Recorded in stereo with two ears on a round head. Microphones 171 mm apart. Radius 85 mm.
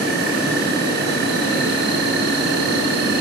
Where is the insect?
55° right (ahead or behind), 9.5 m.